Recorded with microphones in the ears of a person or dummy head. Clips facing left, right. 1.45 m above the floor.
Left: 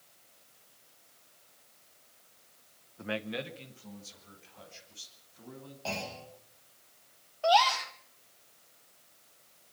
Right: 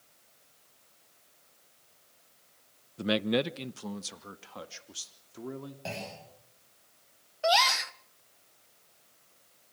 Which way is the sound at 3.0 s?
40° right (ahead or behind).